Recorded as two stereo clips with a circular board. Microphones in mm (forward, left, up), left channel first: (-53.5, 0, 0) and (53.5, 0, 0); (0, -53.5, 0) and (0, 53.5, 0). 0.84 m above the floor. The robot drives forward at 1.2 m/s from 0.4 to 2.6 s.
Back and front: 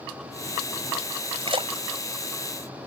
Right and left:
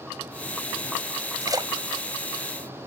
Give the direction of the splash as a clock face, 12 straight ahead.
11 o'clock.